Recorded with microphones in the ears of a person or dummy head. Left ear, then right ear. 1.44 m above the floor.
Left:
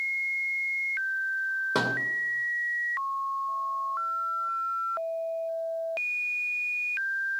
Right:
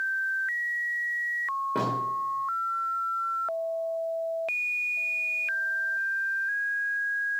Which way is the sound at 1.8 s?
50° left (ahead or behind).